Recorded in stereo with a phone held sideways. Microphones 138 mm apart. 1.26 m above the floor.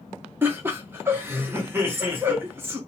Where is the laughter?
15° right (ahead or behind), 1.0 m.